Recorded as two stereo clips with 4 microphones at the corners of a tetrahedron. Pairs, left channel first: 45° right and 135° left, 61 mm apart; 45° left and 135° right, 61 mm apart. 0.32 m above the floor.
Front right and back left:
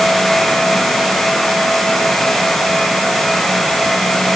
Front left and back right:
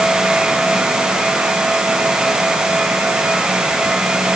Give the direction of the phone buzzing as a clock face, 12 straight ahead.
I don't hear a phone buzzing.